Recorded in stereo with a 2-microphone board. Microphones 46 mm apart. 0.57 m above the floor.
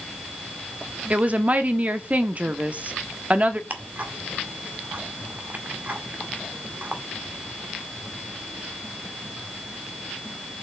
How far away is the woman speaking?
About 1.1 m.